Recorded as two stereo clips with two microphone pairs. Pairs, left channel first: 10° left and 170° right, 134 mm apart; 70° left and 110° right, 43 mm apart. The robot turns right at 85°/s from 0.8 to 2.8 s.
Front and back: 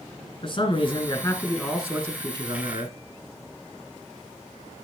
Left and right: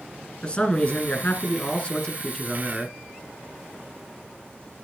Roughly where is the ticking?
No ticking in this recording.